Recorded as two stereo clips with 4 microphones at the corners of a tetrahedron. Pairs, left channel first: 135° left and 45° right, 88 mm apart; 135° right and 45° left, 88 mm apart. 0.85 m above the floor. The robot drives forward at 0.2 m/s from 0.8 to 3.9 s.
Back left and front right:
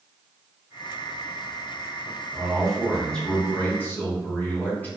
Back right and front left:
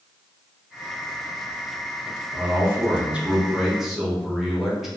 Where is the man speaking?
50° left, 0.6 m; by 4.9 s 130° left, 0.6 m.